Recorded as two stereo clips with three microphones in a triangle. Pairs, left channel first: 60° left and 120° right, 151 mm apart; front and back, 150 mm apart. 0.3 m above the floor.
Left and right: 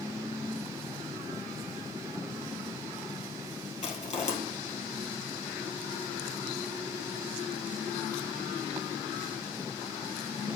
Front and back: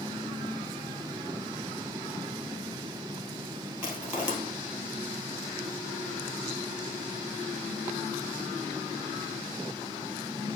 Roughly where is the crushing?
Left.